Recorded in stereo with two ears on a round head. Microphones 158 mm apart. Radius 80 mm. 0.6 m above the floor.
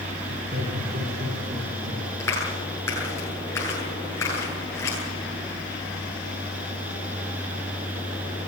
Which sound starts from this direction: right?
Laughter, at 0.3 s.